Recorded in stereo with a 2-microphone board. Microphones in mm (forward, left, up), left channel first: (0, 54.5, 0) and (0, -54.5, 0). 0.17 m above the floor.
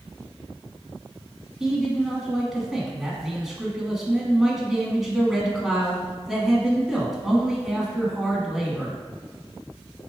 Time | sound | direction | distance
1.6 | a man speaking | centre (ahead or behind) | 1.1 m